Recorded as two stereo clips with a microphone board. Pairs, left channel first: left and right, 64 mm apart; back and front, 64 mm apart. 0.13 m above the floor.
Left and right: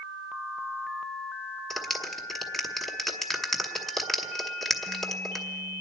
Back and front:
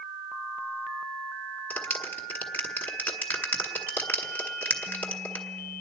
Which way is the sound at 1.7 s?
170° left.